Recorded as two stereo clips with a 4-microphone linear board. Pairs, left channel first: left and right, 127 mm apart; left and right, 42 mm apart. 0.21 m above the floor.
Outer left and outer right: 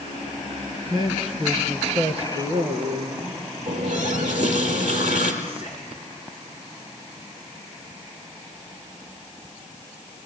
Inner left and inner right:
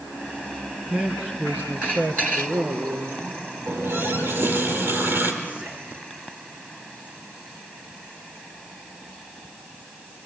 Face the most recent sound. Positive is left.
turn(degrees=-45)  # may be behind; listen again after turning